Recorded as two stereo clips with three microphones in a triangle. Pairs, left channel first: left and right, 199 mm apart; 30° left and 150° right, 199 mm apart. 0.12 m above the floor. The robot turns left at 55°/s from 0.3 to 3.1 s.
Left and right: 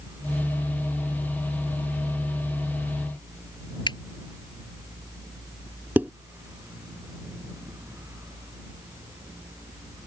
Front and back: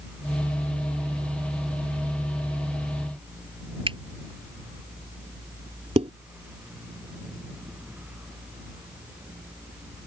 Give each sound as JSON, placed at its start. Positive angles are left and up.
{"t": 3.9, "sound": "a finger snap", "azimuth_deg": 155}
{"t": 6.0, "sound": "dishes clattering", "azimuth_deg": -160}